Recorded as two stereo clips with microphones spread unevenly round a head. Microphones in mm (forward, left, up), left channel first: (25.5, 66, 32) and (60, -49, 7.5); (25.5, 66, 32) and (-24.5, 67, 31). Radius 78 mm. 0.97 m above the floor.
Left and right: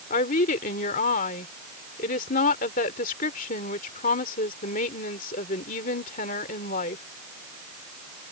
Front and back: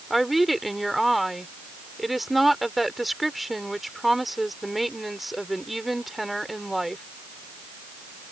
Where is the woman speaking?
95° left.